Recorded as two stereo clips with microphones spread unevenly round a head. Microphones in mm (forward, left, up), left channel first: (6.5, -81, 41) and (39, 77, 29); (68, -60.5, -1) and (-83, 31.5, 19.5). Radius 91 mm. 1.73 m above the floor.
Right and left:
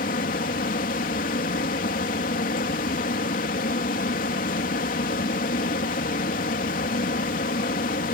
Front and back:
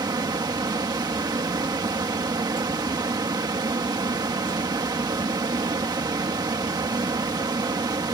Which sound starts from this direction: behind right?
A fan, at 0.0 s.